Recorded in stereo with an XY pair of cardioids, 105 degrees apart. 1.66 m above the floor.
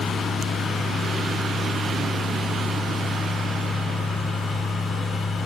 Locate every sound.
0.0 s a fan: 65° left, 2 m